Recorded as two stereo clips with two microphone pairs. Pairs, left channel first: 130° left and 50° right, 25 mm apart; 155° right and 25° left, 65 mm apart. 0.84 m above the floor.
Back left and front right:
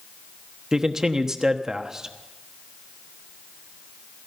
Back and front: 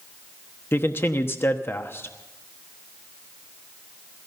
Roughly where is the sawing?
No sawing in this recording.